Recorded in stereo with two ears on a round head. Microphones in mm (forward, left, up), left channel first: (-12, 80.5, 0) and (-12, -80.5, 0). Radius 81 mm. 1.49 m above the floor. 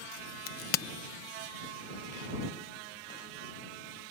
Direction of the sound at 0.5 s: 50° left (ahead or behind).